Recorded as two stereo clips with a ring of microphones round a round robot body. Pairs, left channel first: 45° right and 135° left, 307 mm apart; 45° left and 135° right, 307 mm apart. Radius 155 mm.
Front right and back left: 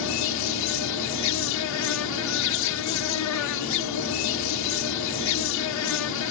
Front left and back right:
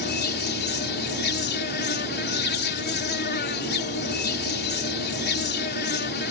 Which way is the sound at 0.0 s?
10° right.